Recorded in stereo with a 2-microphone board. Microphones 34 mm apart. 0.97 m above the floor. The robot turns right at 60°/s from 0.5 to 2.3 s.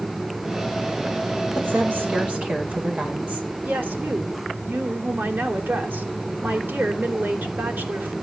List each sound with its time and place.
1.6 s a woman speaking: 85° right, 4.5 m; by 3.5 s 40° right, 4.5 m
3.6 s a woman speaking: 85° right, 3 m